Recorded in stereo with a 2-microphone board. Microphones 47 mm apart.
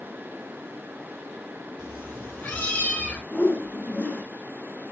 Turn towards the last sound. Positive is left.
turn(degrees=40)  # may be behind; listen again after turning